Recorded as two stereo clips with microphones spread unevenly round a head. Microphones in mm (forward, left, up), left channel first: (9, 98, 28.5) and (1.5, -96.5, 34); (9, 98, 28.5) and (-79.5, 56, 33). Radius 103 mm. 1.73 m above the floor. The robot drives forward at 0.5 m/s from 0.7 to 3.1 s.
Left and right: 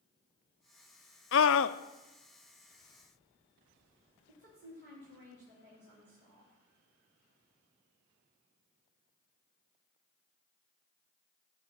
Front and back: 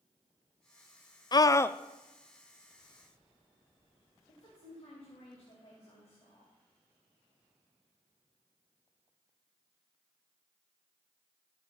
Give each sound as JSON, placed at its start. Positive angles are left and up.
{"t": 1.3, "sound": "a scream", "azimuth_deg": 70, "distance_m": 0.5}
{"t": 4.3, "sound": "a woman speaking", "azimuth_deg": -55, "distance_m": 3.0}